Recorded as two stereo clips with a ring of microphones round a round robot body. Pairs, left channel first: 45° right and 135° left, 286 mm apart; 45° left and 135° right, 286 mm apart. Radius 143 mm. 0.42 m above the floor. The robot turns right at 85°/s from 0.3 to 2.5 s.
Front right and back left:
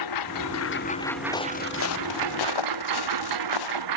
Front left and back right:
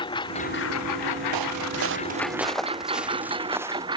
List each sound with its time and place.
0.0 s a lawn mower: 30° right; by 4.0 s 150° left
1.3 s footsteps: 125° right; by 3.8 s 55° right